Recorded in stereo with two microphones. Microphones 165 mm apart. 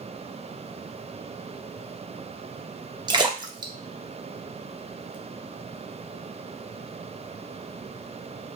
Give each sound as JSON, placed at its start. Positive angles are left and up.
{"t": 3.1, "sound": "a splash", "side_deg": -25, "distance_m": 0.9}